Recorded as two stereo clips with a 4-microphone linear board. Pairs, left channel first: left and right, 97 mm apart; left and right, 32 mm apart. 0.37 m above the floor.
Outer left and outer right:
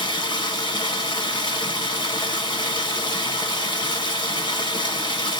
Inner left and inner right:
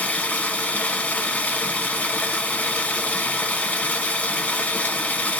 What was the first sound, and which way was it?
Running water, 50° left (ahead or behind).